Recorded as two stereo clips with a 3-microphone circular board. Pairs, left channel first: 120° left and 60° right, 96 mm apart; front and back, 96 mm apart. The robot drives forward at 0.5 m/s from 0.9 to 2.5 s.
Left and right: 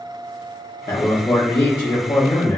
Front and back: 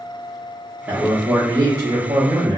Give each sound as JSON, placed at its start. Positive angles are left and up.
{"t": 0.9, "sound": "a man speaking", "azimuth_deg": 115, "distance_m": 0.7}